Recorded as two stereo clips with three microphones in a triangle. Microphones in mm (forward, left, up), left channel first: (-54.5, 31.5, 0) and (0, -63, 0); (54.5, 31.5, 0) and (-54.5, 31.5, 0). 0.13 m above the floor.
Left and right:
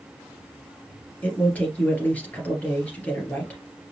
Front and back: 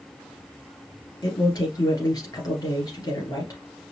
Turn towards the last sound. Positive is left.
turn(degrees=45)